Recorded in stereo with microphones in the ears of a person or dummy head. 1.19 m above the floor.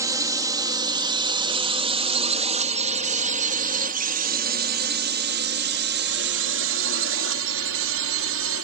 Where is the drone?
15° right (ahead or behind); by 8.7 s 70° right (ahead or behind).